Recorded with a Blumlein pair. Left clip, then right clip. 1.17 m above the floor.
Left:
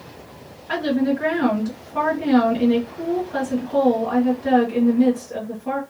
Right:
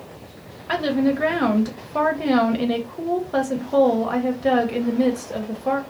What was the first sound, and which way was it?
A woman speaking, 65° right.